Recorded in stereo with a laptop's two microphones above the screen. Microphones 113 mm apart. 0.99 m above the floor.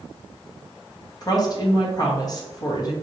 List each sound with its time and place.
1.2 s a woman speaking: 35° left (ahead or behind), 0.7 m